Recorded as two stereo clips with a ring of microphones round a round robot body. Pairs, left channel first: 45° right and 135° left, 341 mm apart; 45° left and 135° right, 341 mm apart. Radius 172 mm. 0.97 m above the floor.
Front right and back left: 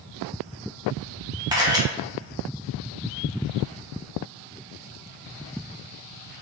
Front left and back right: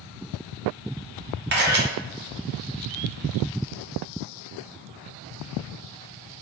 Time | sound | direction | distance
1.5 | a camera shutter | 155° right | 0.7 m